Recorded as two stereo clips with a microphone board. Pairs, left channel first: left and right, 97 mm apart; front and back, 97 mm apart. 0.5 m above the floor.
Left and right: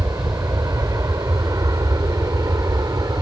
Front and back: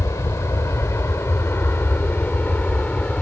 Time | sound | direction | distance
0.0 | an aircraft | 45° right | ?